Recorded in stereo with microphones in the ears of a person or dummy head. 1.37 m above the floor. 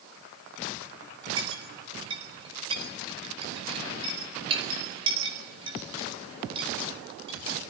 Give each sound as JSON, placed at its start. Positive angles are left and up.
{"t": 1.4, "sound": "a clink", "side_deg": -25, "distance_m": 4.0}